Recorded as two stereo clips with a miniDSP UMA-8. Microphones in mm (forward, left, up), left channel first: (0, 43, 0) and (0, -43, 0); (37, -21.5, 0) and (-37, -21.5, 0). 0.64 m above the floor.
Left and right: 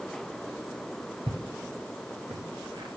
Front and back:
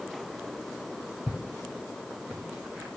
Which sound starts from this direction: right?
Footsteps, at 1.3 s.